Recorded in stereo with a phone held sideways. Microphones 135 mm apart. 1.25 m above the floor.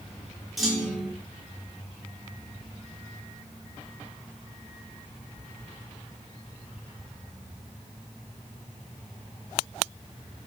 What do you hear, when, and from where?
0.6 s a clunk: centre (ahead or behind), 4.5 m